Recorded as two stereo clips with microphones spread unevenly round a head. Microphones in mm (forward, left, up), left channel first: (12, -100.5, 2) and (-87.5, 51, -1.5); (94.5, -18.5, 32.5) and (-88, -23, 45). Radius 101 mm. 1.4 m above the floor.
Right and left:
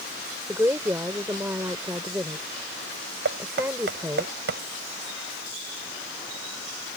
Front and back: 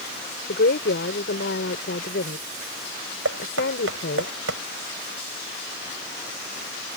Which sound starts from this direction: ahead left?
A woman speaking, at 0.5 s.